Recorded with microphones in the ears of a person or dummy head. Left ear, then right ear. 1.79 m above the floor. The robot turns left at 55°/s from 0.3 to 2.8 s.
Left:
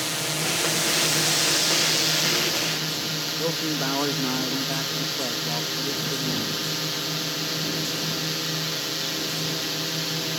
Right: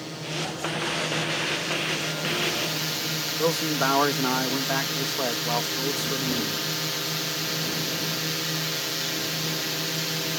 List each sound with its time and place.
0.0 s a drone: 130° left; by 10.4 s 10° right
3.4 s a man speaking: 35° right (ahead or behind)